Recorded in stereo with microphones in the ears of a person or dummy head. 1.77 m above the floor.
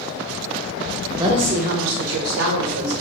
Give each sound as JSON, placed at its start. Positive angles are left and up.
{"t": 1.2, "sound": "a woman speaking", "side_deg": -20, "distance_m": 0.9}